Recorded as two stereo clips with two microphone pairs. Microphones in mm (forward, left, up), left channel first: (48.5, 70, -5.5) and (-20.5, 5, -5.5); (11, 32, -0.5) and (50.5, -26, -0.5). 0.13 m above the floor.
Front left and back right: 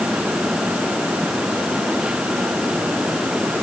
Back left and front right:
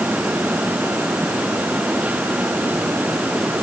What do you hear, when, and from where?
Only background noise.